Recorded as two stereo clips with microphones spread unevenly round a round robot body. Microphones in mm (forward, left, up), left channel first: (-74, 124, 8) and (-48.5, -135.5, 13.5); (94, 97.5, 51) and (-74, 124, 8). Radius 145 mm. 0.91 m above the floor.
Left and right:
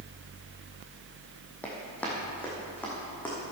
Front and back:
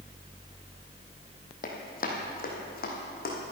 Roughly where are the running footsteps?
Ahead.